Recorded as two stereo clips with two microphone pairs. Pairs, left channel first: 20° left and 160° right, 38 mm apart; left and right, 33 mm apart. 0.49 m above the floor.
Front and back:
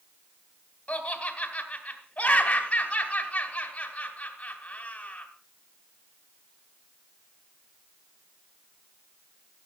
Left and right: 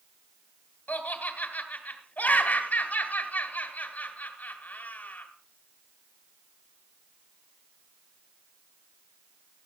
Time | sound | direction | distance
0.9 | laughter | 75° left | 2.5 m